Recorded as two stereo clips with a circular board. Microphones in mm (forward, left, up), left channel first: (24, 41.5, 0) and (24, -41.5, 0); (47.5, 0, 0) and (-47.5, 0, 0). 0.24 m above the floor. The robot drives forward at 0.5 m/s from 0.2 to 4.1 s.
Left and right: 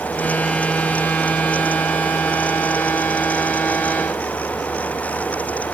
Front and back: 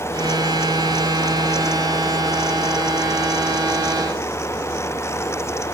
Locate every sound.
Only background noise.